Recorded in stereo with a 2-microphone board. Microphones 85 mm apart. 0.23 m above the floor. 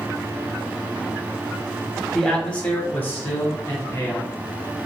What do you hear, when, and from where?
2.1 s a man speaking: 5° left (ahead or behind), 1.1 m; by 4.3 s 35° left (ahead or behind), 1.4 m